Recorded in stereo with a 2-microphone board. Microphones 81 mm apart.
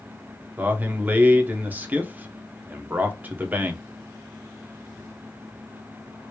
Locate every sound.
0.6 s a man speaking: 20° right (ahead or behind), 0.9 m